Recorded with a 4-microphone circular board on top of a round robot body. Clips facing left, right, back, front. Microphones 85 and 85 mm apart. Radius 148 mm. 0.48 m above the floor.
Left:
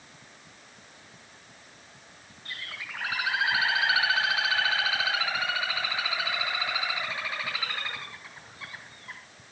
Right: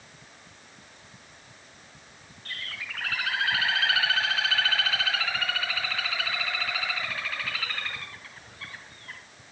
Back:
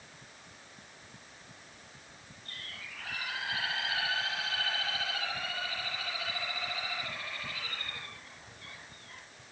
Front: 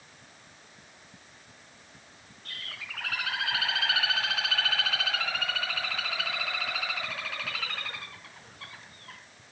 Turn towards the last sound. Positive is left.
turn(degrees=15)